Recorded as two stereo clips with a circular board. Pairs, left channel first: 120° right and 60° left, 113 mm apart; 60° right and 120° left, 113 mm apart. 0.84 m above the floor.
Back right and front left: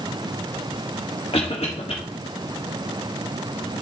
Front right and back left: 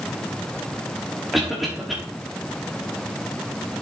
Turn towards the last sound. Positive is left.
turn(degrees=-150)